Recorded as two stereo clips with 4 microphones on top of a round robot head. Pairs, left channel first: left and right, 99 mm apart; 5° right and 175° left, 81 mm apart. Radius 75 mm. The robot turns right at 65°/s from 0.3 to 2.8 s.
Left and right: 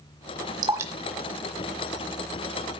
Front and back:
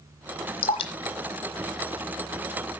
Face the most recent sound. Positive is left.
turn(degrees=110)